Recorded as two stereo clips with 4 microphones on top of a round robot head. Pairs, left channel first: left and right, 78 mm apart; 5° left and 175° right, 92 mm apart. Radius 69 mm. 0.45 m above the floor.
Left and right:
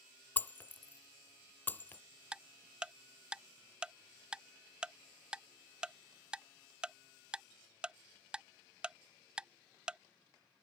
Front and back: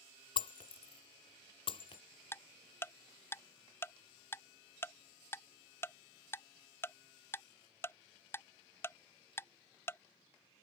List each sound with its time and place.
0.4 s breaking glass: 25° left
2.3 s ticking: 25° right